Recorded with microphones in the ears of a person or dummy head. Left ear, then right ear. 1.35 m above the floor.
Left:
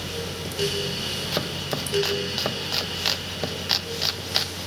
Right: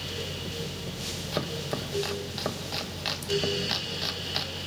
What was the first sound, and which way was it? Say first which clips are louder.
Chopping: left 4 dB; 20° left (ahead or behind).